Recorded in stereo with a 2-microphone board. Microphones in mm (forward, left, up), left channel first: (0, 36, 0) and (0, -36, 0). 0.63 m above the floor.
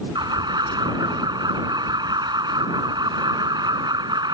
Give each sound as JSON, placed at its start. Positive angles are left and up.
{"t": 0.1, "sound": "an alarm", "side_deg": -75}